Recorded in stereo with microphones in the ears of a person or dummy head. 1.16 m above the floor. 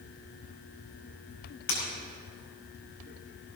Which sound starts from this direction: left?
Breaking glass, at 1.7 s.